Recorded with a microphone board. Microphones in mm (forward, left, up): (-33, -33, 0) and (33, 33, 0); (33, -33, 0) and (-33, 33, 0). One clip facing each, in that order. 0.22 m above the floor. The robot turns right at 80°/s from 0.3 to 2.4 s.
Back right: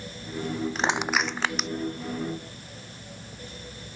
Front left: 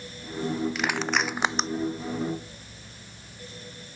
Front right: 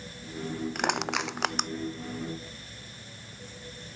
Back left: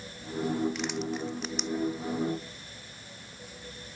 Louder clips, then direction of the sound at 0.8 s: Back right 1 dB, front right 3 dB; 80° right.